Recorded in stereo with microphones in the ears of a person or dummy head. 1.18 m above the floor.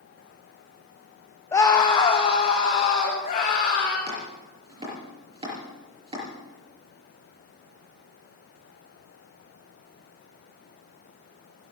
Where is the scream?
15° left (ahead or behind), 1.2 m; by 4.0 s 50° left (ahead or behind), 2.5 m.